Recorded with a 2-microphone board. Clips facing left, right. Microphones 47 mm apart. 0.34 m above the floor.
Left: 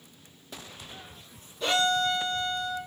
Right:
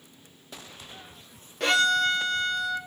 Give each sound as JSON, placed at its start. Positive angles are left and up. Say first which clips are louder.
{"t": 1.6, "sound": "a violin", "louder": "right 3 dB", "side_deg": -70, "distance_m": 1.1}